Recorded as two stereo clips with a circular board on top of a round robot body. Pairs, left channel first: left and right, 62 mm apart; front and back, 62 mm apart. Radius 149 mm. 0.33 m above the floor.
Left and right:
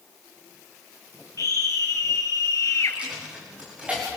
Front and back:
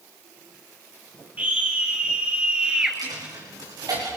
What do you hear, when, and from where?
1.4 s a scream: 115° left, 3.5 m; by 3.0 s 105° left, 2 m
2.9 s a dropped coin: 160° right, 6.5 m